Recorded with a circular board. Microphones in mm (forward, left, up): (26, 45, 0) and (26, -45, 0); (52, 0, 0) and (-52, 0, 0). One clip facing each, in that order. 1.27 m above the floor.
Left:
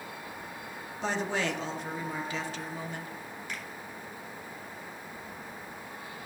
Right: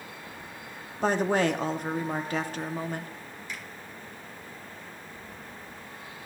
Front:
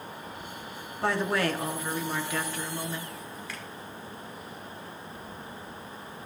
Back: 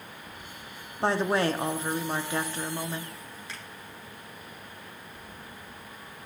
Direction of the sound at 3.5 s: 120° left.